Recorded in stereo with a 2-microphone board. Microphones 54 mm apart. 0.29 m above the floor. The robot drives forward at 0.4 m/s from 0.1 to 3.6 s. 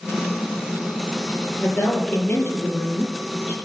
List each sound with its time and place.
1.6 s a woman speaking: 40° left (ahead or behind), 5.5 m; by 3.5 s 35° left (ahead or behind), 6 m